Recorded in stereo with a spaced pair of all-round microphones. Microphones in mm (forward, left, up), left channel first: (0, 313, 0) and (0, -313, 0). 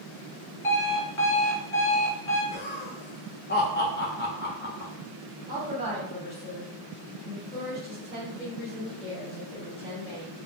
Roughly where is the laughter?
Centre.